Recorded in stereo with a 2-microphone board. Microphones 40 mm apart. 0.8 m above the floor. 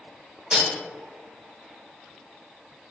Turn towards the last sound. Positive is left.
turn(degrees=-15)  # may be behind; listen again after turning